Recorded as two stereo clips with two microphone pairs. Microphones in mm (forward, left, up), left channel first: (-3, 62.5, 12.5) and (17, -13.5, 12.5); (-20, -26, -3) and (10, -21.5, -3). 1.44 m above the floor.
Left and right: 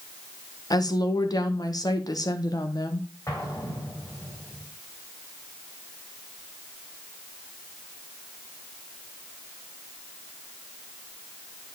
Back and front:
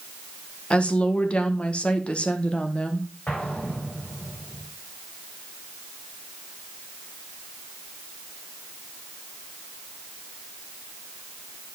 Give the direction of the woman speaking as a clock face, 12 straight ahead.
7 o'clock.